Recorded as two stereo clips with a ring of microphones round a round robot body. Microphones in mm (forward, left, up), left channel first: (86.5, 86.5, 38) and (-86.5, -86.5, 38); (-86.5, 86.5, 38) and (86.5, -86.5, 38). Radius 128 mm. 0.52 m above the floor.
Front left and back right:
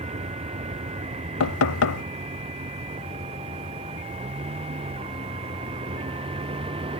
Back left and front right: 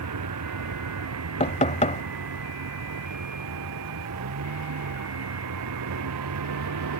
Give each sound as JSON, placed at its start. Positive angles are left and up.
{"t": 0.0, "sound": "a vehicle", "azimuth_deg": -70}
{"t": 1.4, "sound": "knocking", "azimuth_deg": 70}